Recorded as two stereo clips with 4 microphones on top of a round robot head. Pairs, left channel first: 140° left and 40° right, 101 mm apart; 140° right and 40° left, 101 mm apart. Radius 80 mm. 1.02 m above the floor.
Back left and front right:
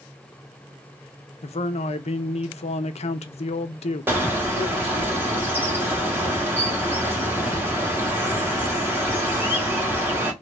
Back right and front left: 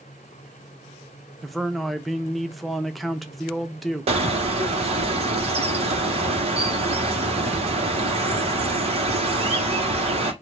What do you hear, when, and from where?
1.4 s a man speaking: 130° left, 0.7 m
4.1 s a bird: 30° left, 1.3 m